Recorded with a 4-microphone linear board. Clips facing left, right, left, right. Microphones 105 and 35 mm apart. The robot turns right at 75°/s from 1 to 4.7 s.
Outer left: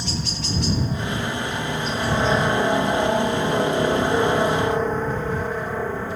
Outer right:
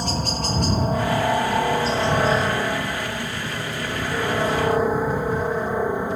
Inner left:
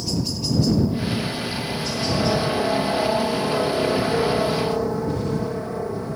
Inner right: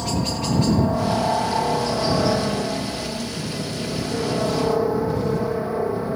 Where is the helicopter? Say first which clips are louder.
Outer right 4 dB, inner right 2 dB; 50° right (ahead or behind); by 6.2 s 15° right (ahead or behind).